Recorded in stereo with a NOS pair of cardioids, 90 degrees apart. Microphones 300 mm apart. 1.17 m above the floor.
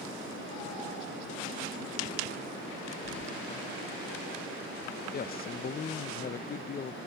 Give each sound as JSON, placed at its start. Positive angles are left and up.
{"t": 3.0, "sound": "keys jangling", "azimuth_deg": 40, "distance_m": 0.6}
{"t": 5.1, "sound": "a man speaking", "azimuth_deg": 30, "distance_m": 0.5}